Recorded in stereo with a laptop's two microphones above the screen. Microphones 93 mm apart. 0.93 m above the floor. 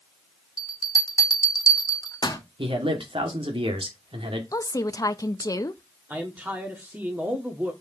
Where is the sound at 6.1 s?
20° right (ahead or behind), 1.7 m.